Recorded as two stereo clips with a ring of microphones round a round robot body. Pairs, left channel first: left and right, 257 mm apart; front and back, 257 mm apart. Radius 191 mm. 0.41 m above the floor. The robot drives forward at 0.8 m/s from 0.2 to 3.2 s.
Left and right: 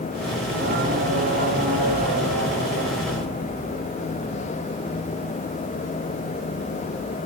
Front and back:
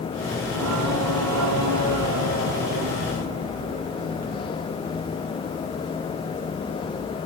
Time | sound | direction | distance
0.4 | singing | 150° right | 3 m